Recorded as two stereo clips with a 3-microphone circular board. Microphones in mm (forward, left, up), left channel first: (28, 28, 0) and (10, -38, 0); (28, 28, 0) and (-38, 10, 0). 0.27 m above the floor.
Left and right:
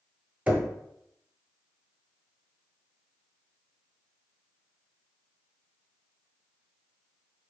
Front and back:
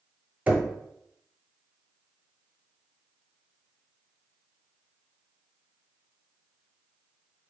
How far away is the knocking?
About 0.9 m.